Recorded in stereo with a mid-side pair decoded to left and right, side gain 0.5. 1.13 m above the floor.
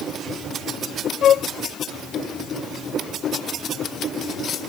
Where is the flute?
55° left.